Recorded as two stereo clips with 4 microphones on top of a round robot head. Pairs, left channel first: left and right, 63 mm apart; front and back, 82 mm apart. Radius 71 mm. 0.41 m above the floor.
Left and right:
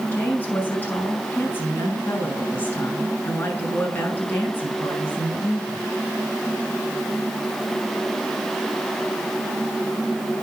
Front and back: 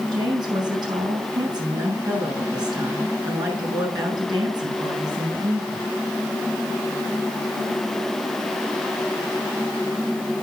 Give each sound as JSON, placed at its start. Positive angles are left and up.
{"t": 0.1, "sound": "a woman speaking", "azimuth_deg": 145, "distance_m": 5.0}